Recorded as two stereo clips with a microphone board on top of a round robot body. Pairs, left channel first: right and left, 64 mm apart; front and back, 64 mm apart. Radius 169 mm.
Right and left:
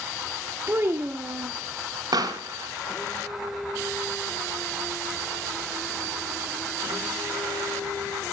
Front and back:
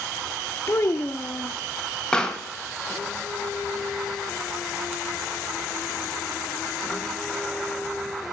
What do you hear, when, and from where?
0.7 s a child speaking: 45° left, 0.9 m
2.1 s a pop: 80° left, 2.5 m